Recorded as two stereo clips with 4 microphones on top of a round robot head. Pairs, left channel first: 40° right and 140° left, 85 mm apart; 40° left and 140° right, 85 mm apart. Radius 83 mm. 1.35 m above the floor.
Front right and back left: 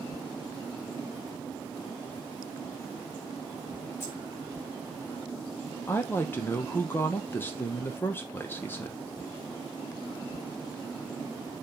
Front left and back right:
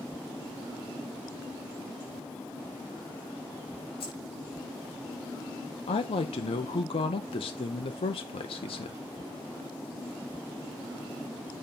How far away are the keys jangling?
About 4.5 m.